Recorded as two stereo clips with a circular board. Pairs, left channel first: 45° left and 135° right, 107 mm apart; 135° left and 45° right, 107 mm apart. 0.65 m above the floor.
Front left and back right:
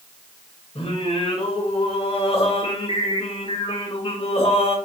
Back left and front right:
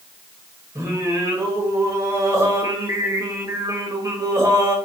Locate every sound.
0.8 s singing: 15° left, 1.1 m